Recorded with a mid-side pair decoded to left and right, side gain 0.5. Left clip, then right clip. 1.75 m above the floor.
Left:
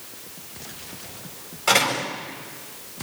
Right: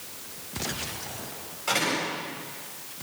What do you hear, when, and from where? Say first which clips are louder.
1.7 s a door slam: left 6 dB; 55° left, 8.5 m